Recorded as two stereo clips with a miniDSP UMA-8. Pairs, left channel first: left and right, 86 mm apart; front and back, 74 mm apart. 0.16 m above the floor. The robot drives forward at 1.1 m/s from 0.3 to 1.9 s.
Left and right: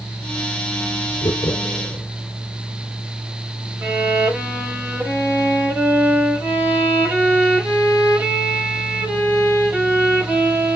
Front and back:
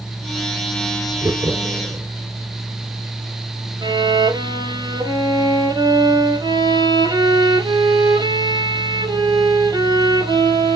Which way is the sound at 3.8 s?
155° right.